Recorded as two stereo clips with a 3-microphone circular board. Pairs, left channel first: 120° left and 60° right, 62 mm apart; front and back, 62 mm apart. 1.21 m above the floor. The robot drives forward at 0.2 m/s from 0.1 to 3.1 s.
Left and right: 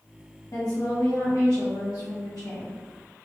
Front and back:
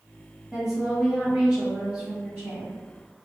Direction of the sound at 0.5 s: 100° left.